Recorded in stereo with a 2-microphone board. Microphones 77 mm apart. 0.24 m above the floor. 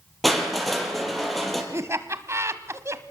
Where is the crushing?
Centre (ahead or behind), 4.5 m.